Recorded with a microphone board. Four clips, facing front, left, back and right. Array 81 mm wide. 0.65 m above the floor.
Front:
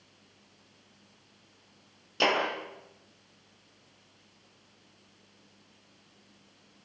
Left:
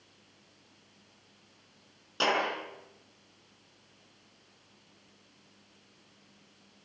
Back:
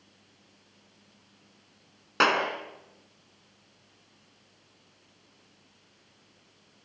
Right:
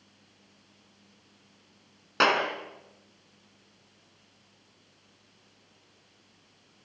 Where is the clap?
145° right, 6 m.